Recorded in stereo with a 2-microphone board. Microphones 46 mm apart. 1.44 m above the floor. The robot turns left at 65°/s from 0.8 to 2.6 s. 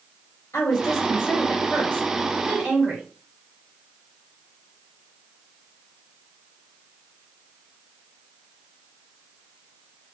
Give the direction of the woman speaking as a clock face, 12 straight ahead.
9 o'clock.